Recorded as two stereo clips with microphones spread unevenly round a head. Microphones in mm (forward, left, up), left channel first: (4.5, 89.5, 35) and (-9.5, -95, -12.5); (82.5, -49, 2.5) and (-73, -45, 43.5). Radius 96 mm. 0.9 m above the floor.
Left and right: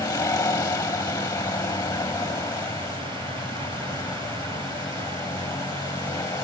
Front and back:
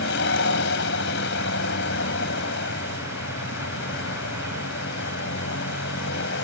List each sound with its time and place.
0.0 s a vehicle: 15° left